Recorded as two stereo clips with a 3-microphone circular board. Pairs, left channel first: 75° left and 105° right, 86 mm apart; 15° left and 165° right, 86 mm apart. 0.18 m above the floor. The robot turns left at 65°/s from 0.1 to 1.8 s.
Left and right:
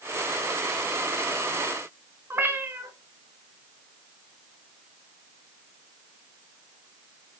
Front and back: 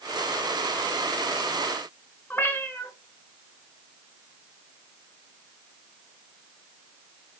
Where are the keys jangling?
No keys jangling in this recording.